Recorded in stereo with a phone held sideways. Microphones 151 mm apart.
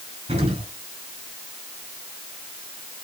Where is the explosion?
45° right (ahead or behind), 9 m.